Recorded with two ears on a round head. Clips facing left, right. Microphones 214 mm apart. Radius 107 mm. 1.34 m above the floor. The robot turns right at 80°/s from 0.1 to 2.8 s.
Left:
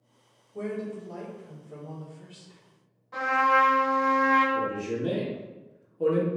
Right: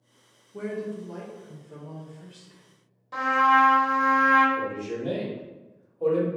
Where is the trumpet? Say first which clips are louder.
Right 1 dB; 55° right (ahead or behind), 1.1 m.